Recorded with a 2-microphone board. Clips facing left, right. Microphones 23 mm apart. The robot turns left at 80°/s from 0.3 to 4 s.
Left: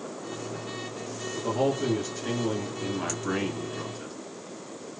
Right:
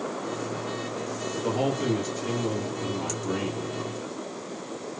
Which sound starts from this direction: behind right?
A man speaking, at 1.4 s.